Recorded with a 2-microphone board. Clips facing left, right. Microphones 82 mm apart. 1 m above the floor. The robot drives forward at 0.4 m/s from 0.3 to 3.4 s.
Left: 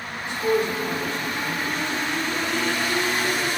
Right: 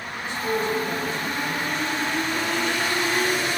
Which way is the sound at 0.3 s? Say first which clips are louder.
Left 3 dB; 85° left.